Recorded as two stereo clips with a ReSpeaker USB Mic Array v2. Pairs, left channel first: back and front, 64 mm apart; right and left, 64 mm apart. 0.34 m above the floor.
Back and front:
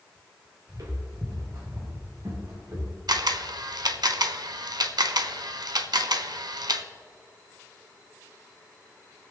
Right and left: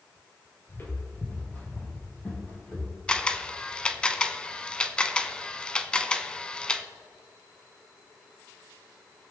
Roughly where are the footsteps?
Ahead right.